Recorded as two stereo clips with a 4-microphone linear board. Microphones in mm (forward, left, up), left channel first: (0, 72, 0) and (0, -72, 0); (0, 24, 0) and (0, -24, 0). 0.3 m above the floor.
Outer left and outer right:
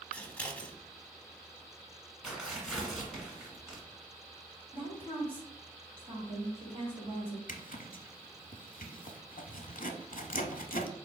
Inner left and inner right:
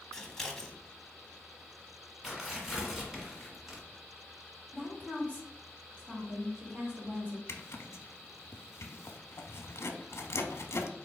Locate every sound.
0.1 s scissors: 10° left (ahead or behind), 0.7 m
2.2 s tearing paper: 5° right (ahead or behind), 1.6 m
4.7 s a woman speaking: 40° right (ahead or behind), 2.0 m
7.5 s a zipper: 75° left (ahead or behind), 0.6 m